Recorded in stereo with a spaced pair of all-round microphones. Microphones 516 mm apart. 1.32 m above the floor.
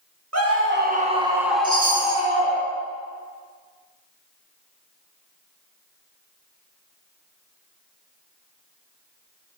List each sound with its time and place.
0.3 s a scream: 30° right (ahead or behind), 1.2 m; by 2.6 s 20° left (ahead or behind), 1.5 m
1.6 s a chime: 10° right (ahead or behind), 2.0 m